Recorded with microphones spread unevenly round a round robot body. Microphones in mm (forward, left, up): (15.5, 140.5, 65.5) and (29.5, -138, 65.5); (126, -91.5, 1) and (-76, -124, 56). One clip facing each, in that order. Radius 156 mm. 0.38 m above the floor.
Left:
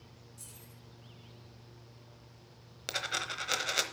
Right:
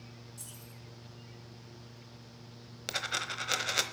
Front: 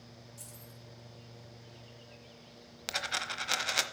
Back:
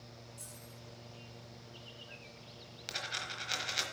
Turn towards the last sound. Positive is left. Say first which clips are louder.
# left 1 dB, front 6 dB
turn(degrees=5)